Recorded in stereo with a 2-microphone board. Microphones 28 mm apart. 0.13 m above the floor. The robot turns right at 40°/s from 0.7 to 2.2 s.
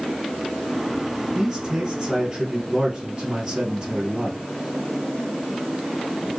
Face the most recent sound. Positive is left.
turn(degrees=-30)  # may be behind; listen again after turning